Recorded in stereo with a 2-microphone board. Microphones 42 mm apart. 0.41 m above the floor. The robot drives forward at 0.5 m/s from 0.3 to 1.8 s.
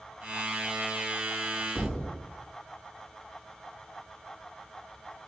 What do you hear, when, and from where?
1.8 s a thud: 30° left (ahead or behind), 1.9 m